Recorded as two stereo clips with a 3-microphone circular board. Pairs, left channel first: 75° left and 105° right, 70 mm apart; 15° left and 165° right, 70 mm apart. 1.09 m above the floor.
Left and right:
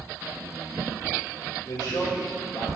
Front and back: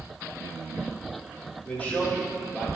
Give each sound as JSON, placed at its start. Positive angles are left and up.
{"t": 1.6, "sound": "a man speaking", "azimuth_deg": 85, "distance_m": 3.5}